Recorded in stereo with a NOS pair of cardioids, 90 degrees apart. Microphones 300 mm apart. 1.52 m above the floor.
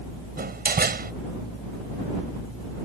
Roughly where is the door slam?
Ahead right.